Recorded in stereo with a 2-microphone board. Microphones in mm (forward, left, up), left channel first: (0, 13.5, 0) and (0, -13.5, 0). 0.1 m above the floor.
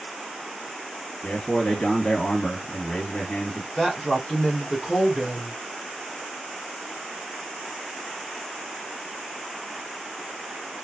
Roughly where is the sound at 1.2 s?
Left.